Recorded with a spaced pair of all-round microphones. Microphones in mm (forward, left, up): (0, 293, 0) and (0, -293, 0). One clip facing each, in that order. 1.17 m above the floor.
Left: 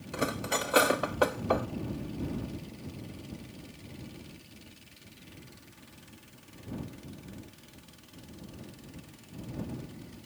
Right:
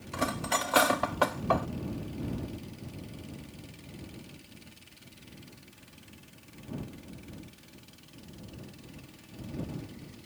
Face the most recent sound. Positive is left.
turn(degrees=-25)  # may be behind; listen again after turning